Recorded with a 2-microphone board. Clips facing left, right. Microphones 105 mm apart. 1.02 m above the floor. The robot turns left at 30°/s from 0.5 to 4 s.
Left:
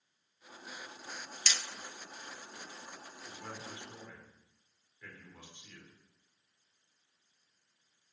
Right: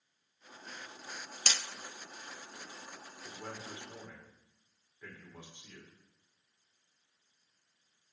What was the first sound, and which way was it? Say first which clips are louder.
Hammering: right 1 dB; 45° right (ahead or behind).